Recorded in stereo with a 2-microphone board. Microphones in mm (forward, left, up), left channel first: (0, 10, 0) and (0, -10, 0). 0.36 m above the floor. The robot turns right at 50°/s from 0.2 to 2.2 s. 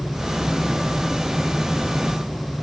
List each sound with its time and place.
Only background noise.